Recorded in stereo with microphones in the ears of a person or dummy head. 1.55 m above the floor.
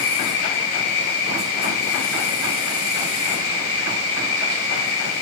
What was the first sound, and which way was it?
An insect, 45° left (ahead or behind).